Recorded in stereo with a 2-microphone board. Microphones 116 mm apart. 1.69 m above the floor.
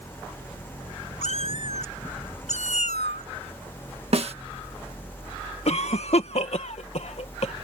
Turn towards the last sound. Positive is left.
turn(degrees=65)  # may be behind; listen again after turning